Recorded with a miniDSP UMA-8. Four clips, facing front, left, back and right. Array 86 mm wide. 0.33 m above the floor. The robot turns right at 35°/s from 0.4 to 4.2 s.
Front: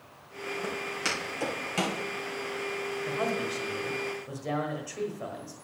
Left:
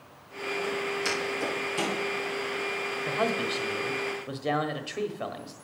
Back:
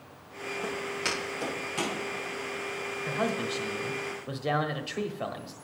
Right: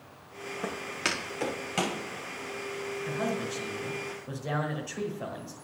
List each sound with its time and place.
0.6 s footsteps: 95° right, 4.5 m; by 2.0 s 50° right, 5.5 m
3.0 s a man speaking: 95° left, 1.3 m; by 5.5 s 135° left, 1.3 m